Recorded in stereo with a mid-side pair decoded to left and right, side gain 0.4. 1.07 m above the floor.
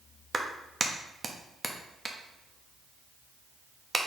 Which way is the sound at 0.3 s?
30° right.